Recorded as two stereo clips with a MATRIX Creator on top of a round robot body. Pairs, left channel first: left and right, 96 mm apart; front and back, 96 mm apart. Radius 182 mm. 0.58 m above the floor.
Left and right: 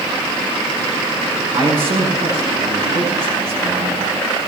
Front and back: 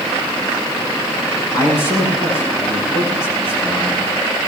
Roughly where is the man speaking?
Ahead right.